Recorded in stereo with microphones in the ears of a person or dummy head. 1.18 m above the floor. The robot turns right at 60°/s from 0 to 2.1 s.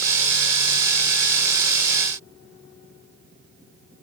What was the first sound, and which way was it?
Only background noise.